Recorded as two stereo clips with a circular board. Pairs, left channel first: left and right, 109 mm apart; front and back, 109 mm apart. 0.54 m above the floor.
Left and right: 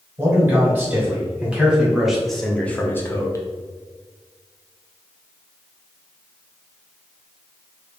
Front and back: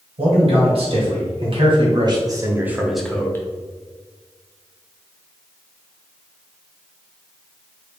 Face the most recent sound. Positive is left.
turn(degrees=50)